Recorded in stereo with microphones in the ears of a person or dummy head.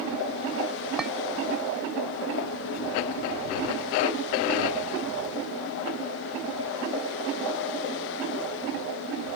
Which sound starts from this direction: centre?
A clink, at 1.0 s.